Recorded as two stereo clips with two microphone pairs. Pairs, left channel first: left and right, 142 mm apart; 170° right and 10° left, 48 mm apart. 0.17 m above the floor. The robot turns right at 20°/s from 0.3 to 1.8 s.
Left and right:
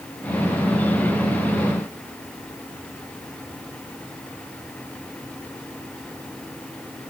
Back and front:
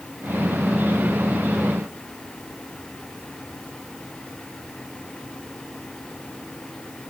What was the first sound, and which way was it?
Only background noise.